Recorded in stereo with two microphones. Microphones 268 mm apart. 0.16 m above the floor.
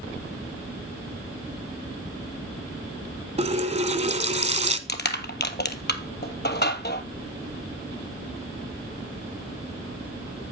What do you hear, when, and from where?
3.4 s a running tap: 25° right (ahead or behind), 0.9 m
4.9 s crushing: 40° left (ahead or behind), 1.0 m